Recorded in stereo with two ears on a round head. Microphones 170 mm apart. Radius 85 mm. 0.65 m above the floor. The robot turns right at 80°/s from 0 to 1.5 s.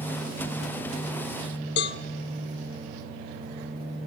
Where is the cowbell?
60° left (ahead or behind), 1.0 m.